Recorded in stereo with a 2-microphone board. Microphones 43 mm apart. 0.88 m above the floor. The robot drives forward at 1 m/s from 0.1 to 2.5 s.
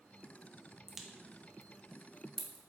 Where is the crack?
10° right (ahead or behind), 0.9 m; by 2.6 s 5° right (ahead or behind), 1.3 m.